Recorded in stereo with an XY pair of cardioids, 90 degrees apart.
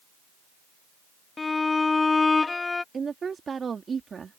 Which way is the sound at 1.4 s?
30° left.